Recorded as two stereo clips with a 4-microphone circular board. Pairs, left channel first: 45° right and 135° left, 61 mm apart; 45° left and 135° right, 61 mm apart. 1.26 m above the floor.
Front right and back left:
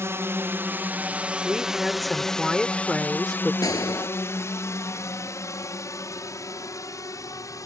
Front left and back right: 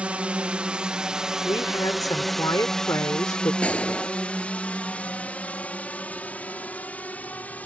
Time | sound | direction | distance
0.0 | a drone | 160° left | ?
1.4 | a woman speaking | 40° left | ?
3.6 | a gunshot | 25° right | ?